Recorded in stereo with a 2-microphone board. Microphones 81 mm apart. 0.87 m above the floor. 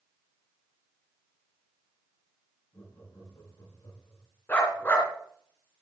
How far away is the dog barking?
About 2.5 m.